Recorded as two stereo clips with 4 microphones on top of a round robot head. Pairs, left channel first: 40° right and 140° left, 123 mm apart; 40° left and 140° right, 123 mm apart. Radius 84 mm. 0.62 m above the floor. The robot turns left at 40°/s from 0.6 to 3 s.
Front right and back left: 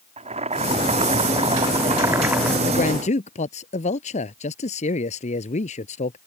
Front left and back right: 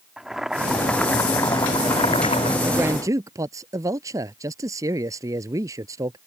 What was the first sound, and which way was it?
Boiling, 135° left.